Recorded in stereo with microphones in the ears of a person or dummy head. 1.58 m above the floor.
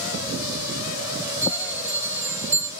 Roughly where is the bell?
Centre.